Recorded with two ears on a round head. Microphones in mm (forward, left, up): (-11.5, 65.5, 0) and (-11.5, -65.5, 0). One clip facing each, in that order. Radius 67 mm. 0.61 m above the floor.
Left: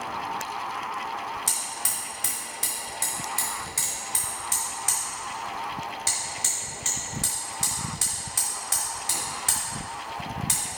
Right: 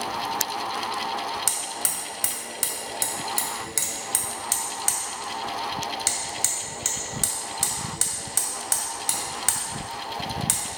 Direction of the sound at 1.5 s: 60° right (ahead or behind).